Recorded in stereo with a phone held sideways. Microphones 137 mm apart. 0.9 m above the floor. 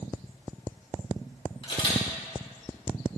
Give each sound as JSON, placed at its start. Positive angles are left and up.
{"t": 1.6, "sound": "a camera shutter", "side_deg": 40, "distance_m": 4.0}